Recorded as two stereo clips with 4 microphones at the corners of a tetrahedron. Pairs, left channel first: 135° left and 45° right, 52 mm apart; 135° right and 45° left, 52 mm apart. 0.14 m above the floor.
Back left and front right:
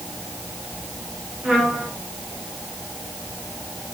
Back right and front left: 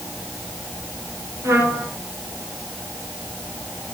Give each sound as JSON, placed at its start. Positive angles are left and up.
{"t": 1.4, "sound": "a trumpet", "azimuth_deg": 20, "distance_m": 9.0}